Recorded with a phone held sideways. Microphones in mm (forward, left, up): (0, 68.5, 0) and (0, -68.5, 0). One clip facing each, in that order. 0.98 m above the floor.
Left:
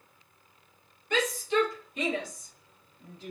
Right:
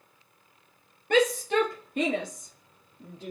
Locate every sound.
1.1 s a shout: 60° right (ahead or behind), 1.8 m; by 3.3 s 55° right (ahead or behind), 3 m